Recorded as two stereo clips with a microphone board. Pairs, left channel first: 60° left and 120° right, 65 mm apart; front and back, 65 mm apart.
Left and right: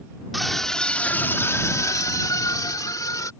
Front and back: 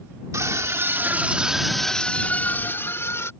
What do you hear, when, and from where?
0.3 s a scream: 150° left; by 3.3 s 40° left